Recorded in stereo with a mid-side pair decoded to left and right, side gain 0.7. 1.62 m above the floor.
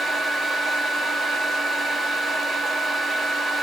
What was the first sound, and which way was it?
A fan, 20° right.